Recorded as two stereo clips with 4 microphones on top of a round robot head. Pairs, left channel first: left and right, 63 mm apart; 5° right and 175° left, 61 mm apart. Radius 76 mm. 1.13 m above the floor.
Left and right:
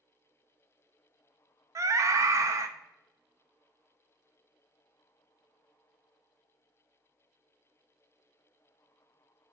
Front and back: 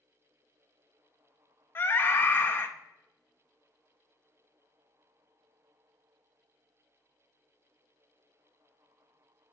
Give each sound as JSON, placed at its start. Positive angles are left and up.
{"t": 1.8, "sound": "a scream", "azimuth_deg": -55, "distance_m": 0.7}